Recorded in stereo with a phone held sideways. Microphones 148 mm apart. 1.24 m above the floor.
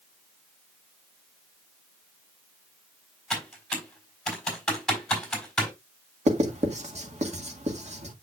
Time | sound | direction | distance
3.3 | typing on a keyboard | 5° left (ahead or behind) | 3.5 m
6.3 | writing | 50° right (ahead or behind) | 1.6 m